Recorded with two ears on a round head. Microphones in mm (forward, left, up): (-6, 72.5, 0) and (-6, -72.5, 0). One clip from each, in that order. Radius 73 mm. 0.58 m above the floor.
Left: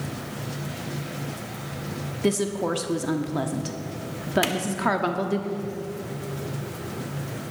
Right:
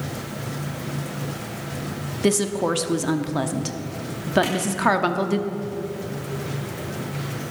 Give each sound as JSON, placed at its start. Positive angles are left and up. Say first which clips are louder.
{"t": 2.2, "sound": "a woman speaking", "louder": "right 3 dB", "side_deg": -15, "distance_m": 0.8}
{"t": 4.4, "sound": "a clap", "louder": "even", "side_deg": 55, "distance_m": 1.7}